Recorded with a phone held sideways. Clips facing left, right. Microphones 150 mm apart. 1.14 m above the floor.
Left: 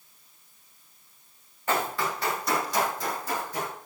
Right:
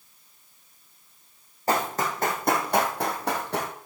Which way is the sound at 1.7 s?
35° right (ahead or behind).